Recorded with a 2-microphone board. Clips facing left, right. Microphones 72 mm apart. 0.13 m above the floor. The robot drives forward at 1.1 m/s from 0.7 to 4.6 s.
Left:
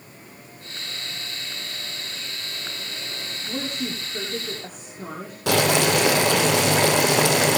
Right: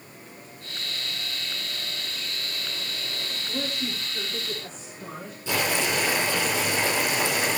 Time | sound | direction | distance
3.5 | a woman speaking | 55° left (ahead or behind) | 8.5 m
5.5 | boiling | 75° left (ahead or behind) | 3 m